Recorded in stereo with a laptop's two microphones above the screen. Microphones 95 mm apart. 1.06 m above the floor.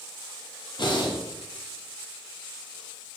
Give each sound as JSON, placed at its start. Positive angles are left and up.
{"t": 0.8, "sound": "breathing", "side_deg": 55, "distance_m": 0.6}